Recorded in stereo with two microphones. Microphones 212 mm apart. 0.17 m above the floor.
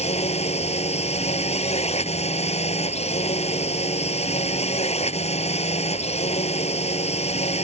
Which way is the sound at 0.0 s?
30° left (ahead or behind).